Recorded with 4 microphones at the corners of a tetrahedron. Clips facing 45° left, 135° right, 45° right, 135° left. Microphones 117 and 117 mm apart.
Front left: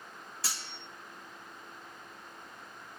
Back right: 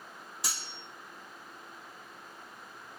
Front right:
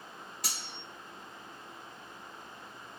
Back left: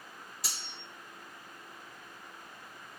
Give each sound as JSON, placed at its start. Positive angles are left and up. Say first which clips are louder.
{"t": 0.4, "sound": "cutlery clinking", "louder": "back right 1 dB, front right 2 dB", "azimuth_deg": -65, "distance_m": 1.2}